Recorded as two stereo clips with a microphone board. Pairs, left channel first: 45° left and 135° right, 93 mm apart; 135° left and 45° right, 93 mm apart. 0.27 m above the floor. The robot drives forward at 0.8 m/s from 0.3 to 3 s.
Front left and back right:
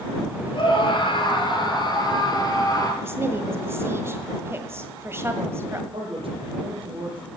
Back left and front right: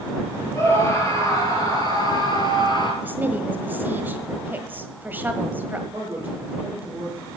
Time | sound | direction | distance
0.5 | a scream | 75° left | 5 m
3.0 | a woman speaking | 100° right | 1.4 m
5.9 | a man speaking | 115° right | 5.5 m